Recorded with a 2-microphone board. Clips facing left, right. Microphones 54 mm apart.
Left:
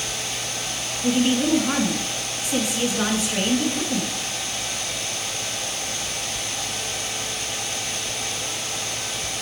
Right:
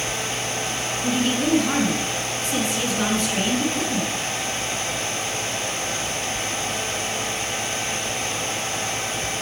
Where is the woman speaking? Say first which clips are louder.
Left 3 dB; 10° left (ahead or behind), 1.3 m.